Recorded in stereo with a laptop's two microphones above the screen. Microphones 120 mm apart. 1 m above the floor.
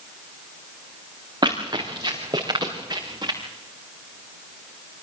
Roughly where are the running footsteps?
Right.